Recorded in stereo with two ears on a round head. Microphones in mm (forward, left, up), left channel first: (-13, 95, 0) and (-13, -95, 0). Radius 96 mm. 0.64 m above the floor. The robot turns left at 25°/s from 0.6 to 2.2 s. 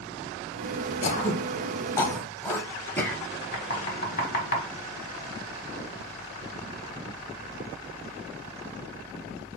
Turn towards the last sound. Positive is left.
turn(degrees=50)  # may be behind; listen again after turning